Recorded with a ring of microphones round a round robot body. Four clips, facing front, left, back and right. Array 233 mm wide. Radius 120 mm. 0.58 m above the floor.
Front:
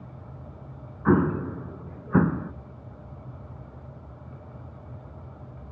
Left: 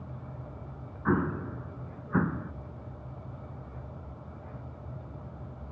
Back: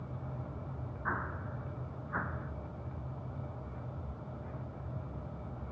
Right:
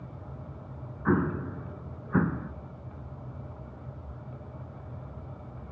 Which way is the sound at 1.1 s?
5° right.